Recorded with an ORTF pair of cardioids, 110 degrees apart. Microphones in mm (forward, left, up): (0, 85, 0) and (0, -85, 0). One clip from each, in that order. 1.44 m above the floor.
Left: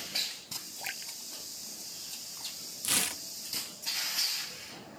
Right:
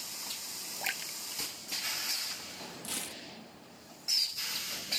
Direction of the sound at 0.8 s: 25° right.